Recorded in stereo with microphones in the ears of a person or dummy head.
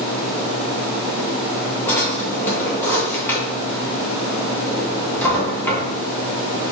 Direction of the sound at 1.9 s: 10° left (ahead or behind).